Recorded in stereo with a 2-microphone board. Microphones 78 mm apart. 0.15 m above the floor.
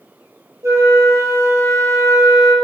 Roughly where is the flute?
Right.